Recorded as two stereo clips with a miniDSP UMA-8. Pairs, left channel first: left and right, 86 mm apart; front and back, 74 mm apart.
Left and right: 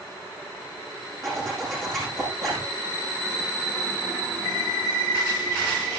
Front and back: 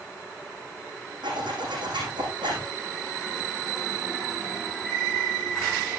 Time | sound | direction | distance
1.2 | a zipper | 175° left | 9 m